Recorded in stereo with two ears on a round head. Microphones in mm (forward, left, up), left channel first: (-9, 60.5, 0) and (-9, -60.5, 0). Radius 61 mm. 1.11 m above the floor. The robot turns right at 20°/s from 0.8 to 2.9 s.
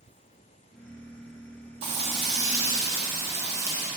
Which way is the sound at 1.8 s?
40° right (ahead or behind).